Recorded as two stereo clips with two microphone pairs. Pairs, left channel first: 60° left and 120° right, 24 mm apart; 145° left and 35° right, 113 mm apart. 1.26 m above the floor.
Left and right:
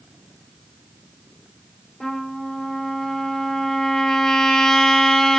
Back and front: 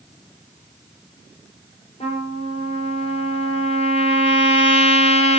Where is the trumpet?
130° left, 4.5 m.